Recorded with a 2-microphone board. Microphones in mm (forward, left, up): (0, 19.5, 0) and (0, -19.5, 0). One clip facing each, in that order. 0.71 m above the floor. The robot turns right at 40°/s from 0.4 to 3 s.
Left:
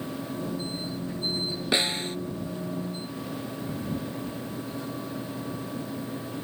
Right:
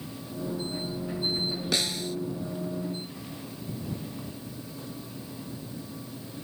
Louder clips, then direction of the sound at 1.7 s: Left 5 dB; 25° left (ahead or behind).